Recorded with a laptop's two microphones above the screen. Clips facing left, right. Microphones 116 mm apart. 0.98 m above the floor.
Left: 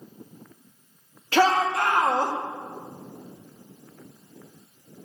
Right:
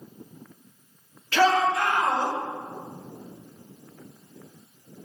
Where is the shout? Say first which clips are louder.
Even; 40° left (ahead or behind), 1.9 m; by 2.3 s 50° left (ahead or behind), 2.5 m.